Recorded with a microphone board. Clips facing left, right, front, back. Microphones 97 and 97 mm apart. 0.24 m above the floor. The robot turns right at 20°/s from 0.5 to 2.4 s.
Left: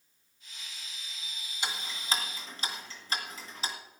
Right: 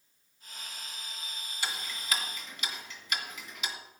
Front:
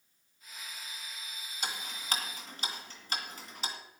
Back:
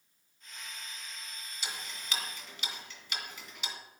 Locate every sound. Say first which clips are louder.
1.6 s ticking: left 1 dB, front 4 dB; 25° left, 2 m; by 3.8 s 40° left, 2 m